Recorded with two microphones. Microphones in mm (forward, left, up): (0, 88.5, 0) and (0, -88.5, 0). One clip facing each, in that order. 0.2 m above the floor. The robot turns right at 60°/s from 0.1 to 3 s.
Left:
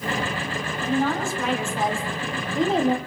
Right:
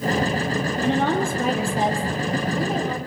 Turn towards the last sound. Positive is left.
turn(degrees=45)